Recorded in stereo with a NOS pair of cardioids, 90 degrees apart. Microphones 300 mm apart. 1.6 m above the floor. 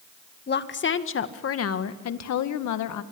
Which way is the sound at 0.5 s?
35° left.